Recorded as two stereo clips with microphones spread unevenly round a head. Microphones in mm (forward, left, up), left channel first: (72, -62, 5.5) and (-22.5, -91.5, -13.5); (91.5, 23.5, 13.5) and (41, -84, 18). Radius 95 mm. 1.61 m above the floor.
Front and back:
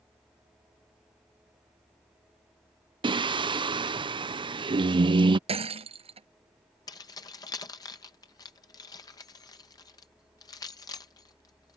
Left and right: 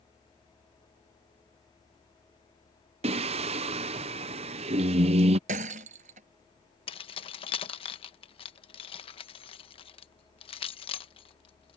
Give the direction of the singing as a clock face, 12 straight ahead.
4 o'clock.